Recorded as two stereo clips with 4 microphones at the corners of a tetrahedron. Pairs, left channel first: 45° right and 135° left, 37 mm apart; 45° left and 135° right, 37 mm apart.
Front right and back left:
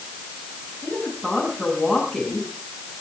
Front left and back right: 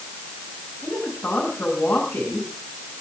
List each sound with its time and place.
0.8 s a woman speaking: 55° left, 8 m